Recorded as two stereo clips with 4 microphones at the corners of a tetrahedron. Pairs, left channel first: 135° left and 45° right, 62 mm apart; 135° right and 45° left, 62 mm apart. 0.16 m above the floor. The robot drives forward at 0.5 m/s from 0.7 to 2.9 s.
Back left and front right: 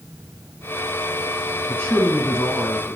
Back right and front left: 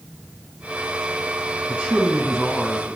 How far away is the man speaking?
About 1.5 m.